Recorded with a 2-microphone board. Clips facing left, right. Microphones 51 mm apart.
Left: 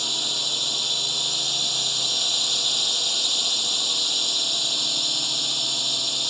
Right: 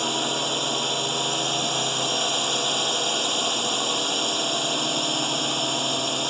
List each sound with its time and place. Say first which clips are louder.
0.0 s a drone: right 5 dB; 35° right (ahead or behind)